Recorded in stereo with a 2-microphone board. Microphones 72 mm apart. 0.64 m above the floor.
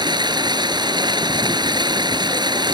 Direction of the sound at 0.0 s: 85° right.